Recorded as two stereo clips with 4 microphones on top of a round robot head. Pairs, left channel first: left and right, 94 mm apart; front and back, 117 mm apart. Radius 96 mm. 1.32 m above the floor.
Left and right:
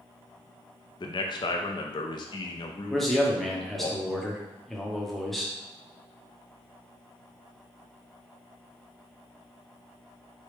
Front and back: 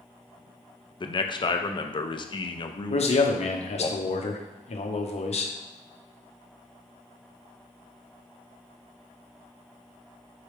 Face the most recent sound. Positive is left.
turn(degrees=0)